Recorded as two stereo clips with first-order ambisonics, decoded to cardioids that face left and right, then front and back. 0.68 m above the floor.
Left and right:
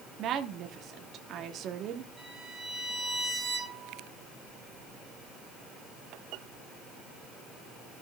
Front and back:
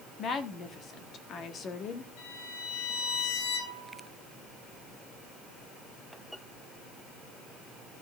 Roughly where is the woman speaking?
Ahead right.